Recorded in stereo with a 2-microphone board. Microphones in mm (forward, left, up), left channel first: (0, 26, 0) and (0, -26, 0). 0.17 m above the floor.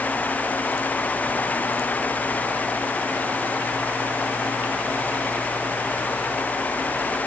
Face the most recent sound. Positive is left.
No sound to turn to.